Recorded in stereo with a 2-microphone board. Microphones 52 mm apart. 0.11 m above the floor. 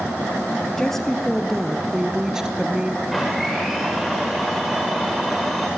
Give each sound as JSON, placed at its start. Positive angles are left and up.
{"t": 0.8, "sound": "a woman speaking", "side_deg": 10, "distance_m": 2.5}
{"t": 3.1, "sound": "a blender", "side_deg": 0, "distance_m": 7.5}